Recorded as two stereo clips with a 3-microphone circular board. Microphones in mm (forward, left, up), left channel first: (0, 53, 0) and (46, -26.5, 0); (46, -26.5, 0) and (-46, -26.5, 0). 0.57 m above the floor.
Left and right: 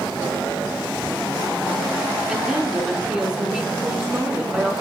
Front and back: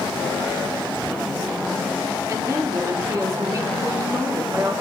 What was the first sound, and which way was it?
A woman speaking, 135° right.